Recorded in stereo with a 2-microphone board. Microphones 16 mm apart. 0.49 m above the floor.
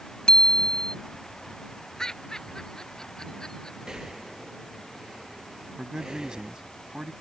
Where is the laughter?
45° left (ahead or behind).